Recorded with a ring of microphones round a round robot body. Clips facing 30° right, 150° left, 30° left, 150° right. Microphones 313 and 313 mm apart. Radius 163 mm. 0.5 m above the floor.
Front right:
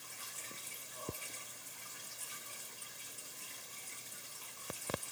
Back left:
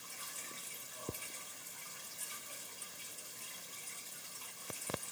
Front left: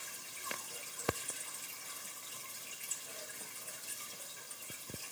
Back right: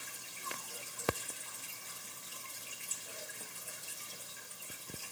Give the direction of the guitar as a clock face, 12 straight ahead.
No guitar in this recording.